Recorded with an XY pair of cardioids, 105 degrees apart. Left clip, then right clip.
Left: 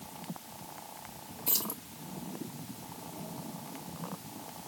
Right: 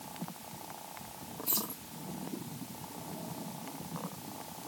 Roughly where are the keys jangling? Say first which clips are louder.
Left 3 dB; ahead left.